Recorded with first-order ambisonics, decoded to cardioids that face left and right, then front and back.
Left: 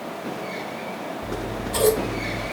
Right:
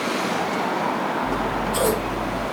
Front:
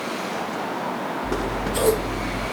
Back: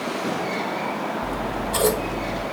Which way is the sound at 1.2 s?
160° left.